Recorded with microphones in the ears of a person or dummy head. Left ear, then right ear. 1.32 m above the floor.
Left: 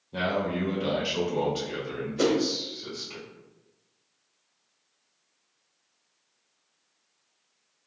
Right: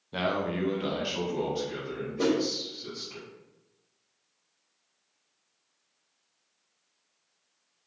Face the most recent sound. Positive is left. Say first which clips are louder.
# left 3 dB
turn(degrees=60)  # may be behind; listen again after turning